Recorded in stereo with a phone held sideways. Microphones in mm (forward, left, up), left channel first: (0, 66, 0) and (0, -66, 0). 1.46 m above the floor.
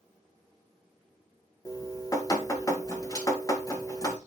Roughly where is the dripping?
Left.